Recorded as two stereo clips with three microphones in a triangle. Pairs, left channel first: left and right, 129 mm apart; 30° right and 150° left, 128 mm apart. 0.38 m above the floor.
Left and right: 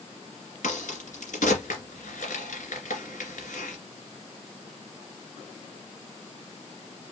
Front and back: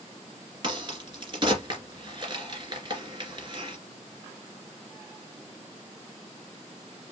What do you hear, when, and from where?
0.6 s a crack: 100° left, 2 m